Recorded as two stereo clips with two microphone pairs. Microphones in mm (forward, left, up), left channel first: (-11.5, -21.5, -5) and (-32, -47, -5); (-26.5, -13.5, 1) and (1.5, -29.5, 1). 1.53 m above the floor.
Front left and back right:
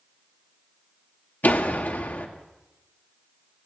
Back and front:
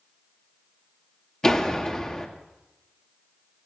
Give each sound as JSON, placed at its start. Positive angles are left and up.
{"t": 1.4, "sound": "a door slam", "azimuth_deg": 80, "distance_m": 1.9}